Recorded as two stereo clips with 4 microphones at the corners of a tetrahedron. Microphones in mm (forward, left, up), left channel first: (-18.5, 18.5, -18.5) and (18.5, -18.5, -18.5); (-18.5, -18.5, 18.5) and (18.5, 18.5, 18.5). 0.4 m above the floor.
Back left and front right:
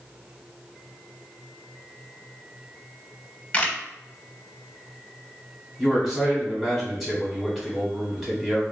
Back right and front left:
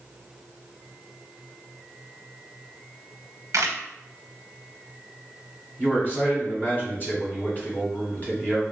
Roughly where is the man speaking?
Behind right.